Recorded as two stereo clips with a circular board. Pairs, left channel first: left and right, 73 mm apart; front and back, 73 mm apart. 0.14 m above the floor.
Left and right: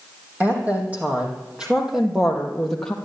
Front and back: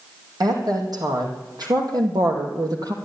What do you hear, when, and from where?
0.4 s a woman speaking: 155° right, 5.5 m; by 3.0 s 170° left, 3 m